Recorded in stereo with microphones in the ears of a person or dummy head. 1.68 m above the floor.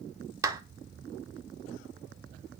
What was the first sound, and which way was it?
A clap, 20° right (ahead or behind).